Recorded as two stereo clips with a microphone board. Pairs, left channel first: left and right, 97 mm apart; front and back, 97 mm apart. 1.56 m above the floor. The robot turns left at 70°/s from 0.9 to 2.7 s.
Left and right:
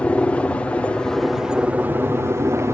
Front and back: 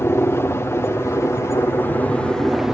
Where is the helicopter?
25° left; by 2.8 s 100° right.